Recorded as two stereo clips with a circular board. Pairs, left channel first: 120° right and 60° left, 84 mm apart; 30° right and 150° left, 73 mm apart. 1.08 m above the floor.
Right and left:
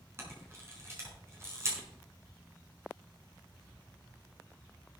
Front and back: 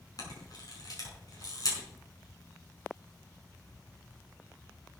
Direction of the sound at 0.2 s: 5° left.